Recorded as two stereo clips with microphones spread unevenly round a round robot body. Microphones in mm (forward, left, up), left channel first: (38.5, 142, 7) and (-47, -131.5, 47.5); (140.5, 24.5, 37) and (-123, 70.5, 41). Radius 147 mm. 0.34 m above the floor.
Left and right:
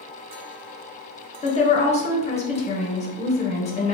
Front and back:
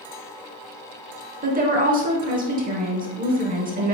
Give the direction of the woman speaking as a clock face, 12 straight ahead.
8 o'clock.